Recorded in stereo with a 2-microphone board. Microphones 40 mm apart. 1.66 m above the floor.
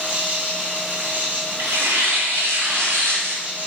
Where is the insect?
50° right (ahead or behind), 1.5 m.